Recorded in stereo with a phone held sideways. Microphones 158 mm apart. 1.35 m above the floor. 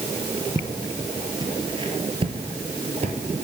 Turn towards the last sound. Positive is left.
turn(degrees=-45)  # may be behind; listen again after turning